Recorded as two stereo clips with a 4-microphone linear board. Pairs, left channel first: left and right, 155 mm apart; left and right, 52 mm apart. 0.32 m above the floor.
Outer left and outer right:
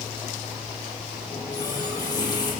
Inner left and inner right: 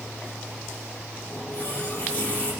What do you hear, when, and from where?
1.3 s a running tap: 25° left (ahead or behind), 4.5 m